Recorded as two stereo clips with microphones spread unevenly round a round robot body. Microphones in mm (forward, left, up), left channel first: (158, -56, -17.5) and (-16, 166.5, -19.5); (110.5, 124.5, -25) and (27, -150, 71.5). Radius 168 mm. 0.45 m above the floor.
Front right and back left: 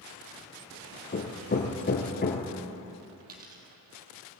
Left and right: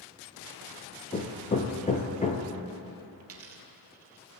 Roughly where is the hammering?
Ahead.